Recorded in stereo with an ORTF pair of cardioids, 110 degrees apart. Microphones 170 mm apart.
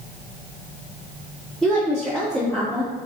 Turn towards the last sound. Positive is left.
turn(degrees=5)